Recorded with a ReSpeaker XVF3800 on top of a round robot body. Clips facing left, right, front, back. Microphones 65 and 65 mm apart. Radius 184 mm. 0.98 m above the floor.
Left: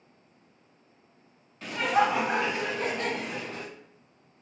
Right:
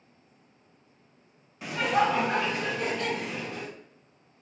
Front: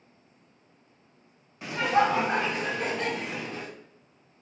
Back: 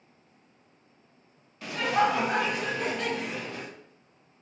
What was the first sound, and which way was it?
Laughter, 30° right.